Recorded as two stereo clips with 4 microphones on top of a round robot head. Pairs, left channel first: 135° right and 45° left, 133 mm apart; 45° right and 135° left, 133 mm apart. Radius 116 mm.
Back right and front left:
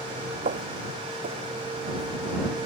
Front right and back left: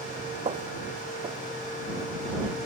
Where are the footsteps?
80° left; by 2.1 s 65° left.